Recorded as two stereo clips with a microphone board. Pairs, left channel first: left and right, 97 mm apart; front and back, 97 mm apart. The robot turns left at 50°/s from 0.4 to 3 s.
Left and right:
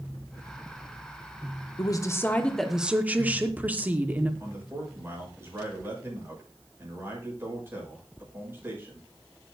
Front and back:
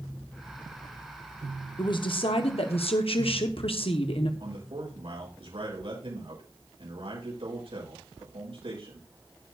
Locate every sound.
1.8 s a woman speaking: 45° left, 1.1 m; by 4.3 s 15° right, 1.1 m
4.4 s a man speaking: 155° right, 7.5 m